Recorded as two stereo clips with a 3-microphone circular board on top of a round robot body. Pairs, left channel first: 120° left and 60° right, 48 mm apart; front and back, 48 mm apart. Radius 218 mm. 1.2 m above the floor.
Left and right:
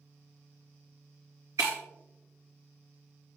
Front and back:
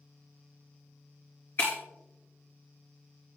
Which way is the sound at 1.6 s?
45° right.